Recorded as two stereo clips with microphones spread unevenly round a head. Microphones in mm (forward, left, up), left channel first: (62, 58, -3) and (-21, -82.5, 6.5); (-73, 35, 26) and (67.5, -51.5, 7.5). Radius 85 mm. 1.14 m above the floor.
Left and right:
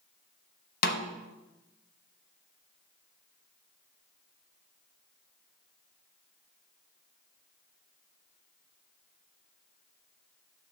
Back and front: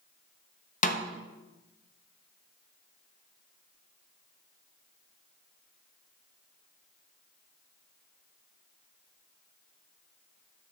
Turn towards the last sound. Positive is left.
turn(degrees=100)